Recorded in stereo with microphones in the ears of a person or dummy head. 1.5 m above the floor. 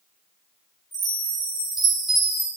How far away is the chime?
About 3 m.